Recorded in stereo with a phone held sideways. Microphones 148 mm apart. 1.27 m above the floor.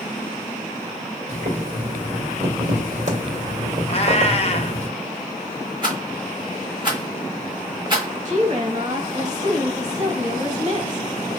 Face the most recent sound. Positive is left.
turn(degrees=-55)  # may be behind; listen again after turning